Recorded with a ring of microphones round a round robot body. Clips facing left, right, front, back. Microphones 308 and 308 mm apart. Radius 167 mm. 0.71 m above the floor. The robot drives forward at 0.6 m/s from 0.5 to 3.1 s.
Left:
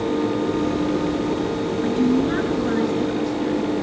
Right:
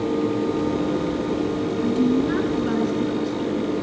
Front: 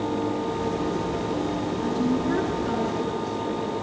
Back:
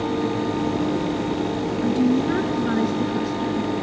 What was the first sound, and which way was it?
A woman speaking, 120° right.